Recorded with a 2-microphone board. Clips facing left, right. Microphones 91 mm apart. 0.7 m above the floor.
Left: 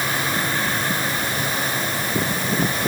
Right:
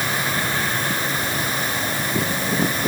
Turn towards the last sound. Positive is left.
No sound to turn to.